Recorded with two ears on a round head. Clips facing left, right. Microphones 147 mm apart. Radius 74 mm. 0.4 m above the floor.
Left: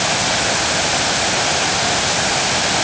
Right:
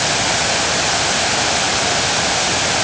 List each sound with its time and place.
Only background noise.